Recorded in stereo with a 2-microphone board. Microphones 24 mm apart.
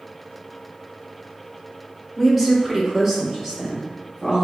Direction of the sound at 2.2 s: 10° right (ahead or behind).